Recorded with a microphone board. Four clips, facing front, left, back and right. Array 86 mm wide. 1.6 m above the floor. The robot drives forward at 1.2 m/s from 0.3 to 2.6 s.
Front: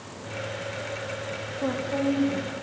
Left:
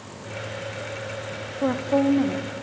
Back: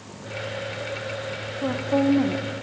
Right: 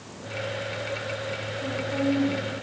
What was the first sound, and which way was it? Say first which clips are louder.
A woman speaking: left 7 dB, back 4 dB; 85° left.